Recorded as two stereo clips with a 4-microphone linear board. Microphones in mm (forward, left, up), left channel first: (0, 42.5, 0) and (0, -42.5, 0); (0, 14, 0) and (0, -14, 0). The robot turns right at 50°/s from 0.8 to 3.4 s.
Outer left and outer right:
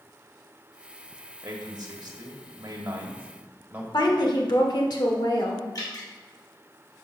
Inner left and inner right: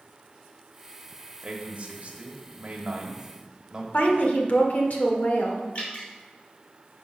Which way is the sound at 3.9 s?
60° left (ahead or behind).